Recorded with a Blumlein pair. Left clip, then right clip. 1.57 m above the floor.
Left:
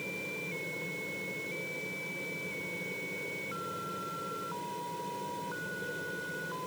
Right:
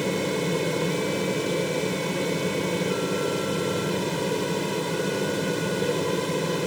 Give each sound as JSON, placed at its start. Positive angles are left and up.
{"t": 0.0, "sound": "a fan", "azimuth_deg": -55}